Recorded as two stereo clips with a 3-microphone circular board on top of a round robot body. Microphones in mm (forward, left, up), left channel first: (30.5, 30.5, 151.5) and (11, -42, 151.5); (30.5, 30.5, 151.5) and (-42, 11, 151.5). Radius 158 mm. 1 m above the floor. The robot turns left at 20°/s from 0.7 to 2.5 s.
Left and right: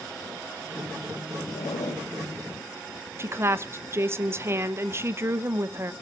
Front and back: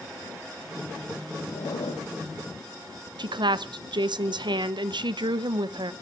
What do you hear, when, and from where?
1.5 s a zipper: 50° left, 2 m; by 2.1 s 35° left, 2 m
3.2 s a woman speaking: 160° right, 1.0 m